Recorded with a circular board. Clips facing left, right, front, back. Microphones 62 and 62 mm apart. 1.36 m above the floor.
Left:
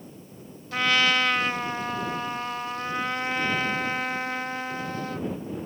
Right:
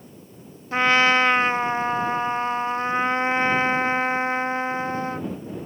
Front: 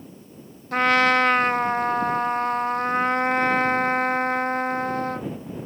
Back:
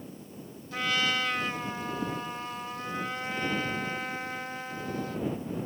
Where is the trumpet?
30° right.